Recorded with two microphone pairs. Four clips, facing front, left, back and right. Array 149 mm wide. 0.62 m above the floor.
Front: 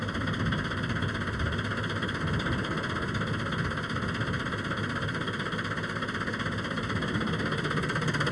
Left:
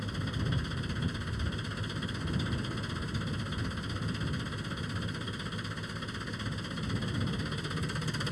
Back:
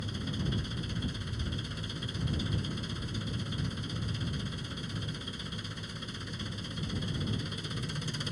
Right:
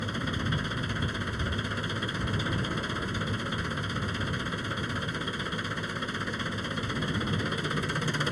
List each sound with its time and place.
0.0 s an engine running: 35° right